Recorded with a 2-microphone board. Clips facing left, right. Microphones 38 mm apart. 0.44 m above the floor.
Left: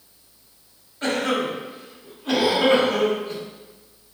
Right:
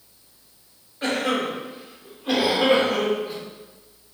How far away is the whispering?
I don't hear whispering.